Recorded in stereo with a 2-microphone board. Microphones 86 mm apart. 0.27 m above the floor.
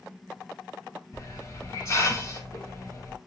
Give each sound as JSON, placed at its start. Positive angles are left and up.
{"t": 1.1, "sound": "a hiss", "side_deg": 35, "distance_m": 1.5}